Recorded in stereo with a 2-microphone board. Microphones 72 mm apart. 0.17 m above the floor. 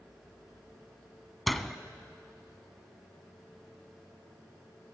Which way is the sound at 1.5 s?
Centre (ahead or behind).